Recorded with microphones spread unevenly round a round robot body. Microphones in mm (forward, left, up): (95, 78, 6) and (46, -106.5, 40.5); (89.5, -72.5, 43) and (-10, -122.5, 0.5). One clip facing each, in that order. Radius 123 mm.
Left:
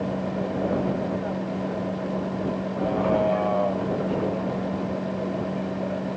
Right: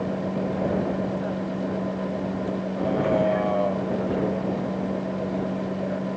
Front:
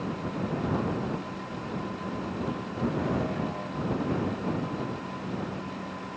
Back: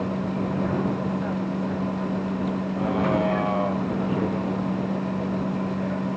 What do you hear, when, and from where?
0.0 s a vehicle: 175° left